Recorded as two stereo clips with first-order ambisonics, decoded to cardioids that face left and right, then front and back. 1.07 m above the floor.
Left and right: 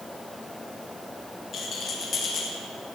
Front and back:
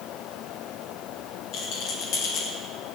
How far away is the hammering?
I don't hear hammering.